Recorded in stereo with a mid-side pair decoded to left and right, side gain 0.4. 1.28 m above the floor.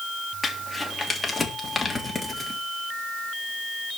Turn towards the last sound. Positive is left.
turn(degrees=25)